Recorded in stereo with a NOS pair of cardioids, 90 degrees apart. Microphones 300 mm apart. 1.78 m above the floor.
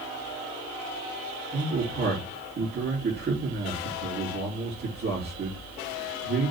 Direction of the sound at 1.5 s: 35° right.